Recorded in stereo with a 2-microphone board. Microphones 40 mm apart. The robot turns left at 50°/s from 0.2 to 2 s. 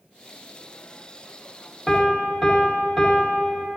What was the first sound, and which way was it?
A piano, centre (ahead or behind).